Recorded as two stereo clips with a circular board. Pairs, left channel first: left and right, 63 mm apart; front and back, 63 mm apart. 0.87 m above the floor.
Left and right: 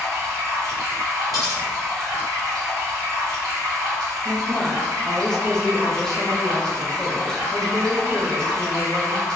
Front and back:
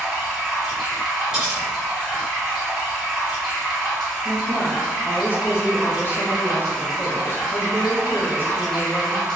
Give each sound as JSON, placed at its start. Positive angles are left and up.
{"t": 0.0, "sound": "running water", "azimuth_deg": -90, "distance_m": 1.5}
{"t": 1.3, "sound": "cutlery clinking", "azimuth_deg": -100, "distance_m": 1.7}
{"t": 4.2, "sound": "a woman speaking", "azimuth_deg": 15, "distance_m": 0.6}